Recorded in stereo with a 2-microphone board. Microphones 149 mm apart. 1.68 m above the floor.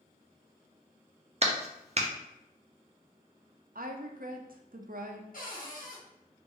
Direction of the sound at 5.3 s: 65° left (ahead or behind).